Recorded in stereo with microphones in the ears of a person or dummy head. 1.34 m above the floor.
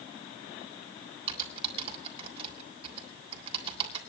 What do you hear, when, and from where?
1.3 s typing on a keyboard: 30° right (ahead or behind), 3.5 m